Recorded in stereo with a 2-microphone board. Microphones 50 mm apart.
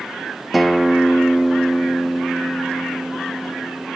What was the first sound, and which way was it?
A guitar, centre (ahead or behind).